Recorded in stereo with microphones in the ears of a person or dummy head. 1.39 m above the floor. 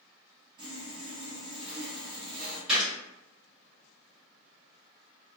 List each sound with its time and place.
0.6 s sawing: 30° right (ahead or behind), 1.5 m
2.7 s a gunshot: 5° right (ahead or behind), 1.3 m